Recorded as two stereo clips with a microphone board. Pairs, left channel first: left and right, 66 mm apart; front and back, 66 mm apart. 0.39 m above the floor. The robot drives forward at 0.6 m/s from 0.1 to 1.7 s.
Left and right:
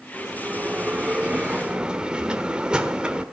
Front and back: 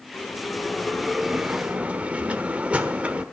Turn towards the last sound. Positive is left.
turn(degrees=-140)